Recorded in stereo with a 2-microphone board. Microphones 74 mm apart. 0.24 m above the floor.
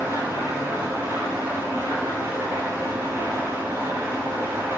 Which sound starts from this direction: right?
An engine running, at 0.0 s.